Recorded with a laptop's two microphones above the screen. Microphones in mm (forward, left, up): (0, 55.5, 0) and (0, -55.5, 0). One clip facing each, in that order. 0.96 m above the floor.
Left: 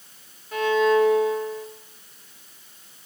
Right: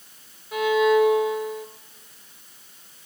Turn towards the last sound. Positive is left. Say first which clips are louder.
# right 1 dB
turn(degrees=-5)  # may be behind; listen again after turning